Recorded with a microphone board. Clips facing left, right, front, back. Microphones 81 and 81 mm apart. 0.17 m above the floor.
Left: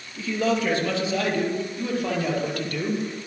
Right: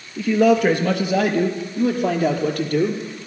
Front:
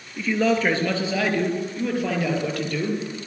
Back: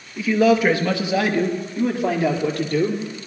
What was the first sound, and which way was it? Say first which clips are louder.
A man speaking: right 8 dB, back 5 dB; 100° right.